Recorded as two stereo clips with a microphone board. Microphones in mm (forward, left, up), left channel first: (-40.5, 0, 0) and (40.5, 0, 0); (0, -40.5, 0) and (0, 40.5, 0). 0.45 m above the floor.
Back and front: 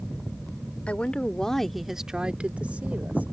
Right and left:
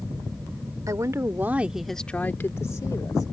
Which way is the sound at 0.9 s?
110° left.